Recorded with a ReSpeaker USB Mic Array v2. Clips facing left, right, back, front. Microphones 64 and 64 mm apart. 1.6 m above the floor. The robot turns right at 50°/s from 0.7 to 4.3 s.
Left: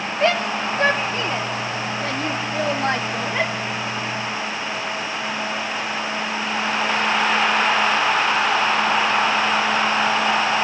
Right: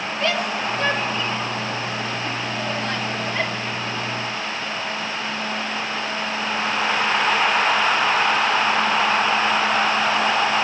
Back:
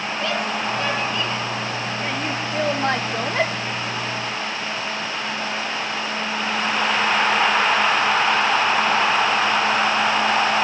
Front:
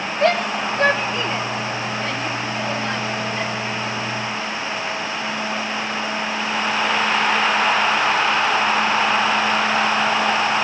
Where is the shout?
35° left, 1.6 m; by 3.5 s 175° left, 1.6 m.